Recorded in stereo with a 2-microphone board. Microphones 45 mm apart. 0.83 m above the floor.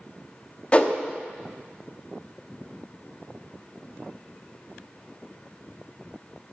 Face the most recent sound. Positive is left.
turn(degrees=30)  # may be behind; listen again after turning